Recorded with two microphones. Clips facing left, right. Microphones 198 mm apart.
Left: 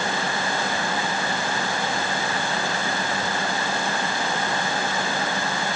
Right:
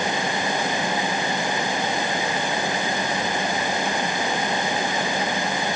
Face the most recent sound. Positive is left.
No sound to turn to.